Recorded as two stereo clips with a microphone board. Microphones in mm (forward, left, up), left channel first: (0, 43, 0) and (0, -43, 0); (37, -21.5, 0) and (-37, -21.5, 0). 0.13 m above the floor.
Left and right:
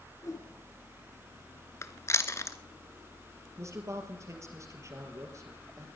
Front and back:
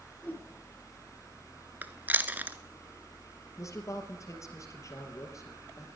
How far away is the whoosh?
About 2.5 m.